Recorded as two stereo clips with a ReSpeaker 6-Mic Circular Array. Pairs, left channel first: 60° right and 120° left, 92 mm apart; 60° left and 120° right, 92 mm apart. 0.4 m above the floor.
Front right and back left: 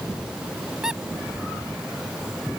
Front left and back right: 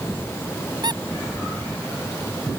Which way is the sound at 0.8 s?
160° right.